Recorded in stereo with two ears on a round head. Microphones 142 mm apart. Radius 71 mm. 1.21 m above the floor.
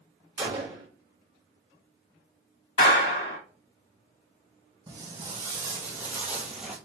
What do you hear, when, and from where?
0.4 s a gunshot: 20° right (ahead or behind), 1.3 m
2.8 s a clap: 75° left (ahead or behind), 2.5 m
4.9 s footsteps: 20° right (ahead or behind), 2.0 m; by 6.8 s 5° right (ahead or behind), 1.3 m